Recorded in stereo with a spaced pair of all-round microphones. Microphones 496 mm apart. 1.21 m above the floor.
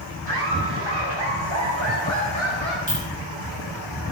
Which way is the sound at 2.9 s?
75° right (ahead or behind).